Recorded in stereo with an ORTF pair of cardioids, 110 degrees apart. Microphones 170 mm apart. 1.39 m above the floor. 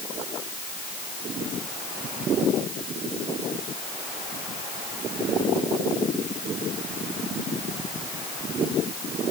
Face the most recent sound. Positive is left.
No sound to turn to.